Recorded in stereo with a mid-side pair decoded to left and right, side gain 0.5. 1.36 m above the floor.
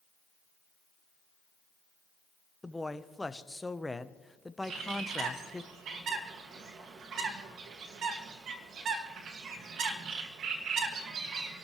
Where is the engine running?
I don't hear an engine running.